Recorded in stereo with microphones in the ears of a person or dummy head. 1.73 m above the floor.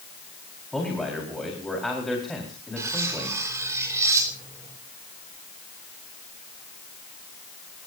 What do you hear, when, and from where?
0.7 s a man speaking: centre (ahead or behind), 4.5 m
2.8 s cutlery clinking: 20° right (ahead or behind), 3.5 m